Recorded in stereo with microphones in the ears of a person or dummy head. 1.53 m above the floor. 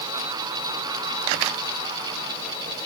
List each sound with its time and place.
Only background noise.